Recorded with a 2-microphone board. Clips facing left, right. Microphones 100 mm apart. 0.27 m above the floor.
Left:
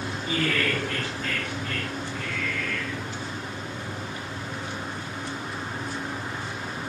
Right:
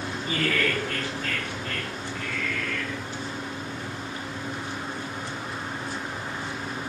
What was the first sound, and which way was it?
Laughter, 40° right (ahead or behind).